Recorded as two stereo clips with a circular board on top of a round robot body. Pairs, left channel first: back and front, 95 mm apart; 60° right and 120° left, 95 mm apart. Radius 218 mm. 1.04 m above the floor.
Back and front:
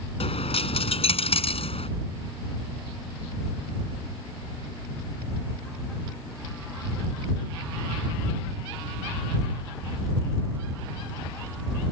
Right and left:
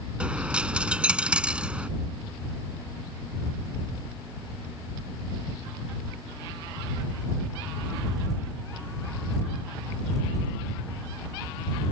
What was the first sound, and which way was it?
A dropped coin, 160° right.